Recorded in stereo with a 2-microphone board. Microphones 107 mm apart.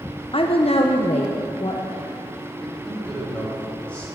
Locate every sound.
0.3 s a woman speaking: 55° left (ahead or behind), 0.7 m; by 2.2 s 60° left (ahead or behind), 1.6 m
2.6 s a man speaking: 15° left (ahead or behind), 4.5 m